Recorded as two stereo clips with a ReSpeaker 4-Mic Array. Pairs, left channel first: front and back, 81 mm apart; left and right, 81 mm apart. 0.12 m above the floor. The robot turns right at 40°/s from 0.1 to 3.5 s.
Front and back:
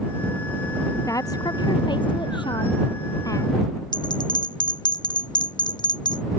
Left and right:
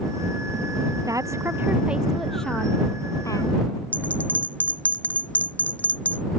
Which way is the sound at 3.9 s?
20° left.